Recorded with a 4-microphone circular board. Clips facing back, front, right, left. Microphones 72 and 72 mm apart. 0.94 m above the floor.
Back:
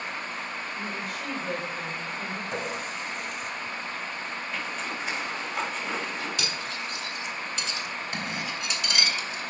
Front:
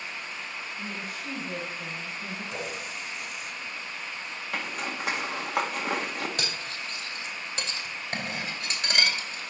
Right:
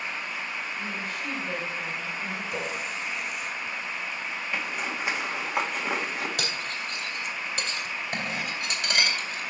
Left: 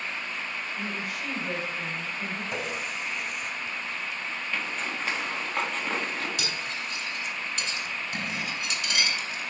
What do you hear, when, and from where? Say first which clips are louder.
0.8 s a woman speaking: back 3 dB, even; 170° left, 3.5 m
2.5 s a running tap: back 3 dB, right 1 dB; 135° left, 4 m
4.5 s a zipper: front 3 dB, right 1 dB; 15° right, 1.7 m
6.4 s cutlery clinking: back 2 dB, right 1 dB; 50° right, 2.0 m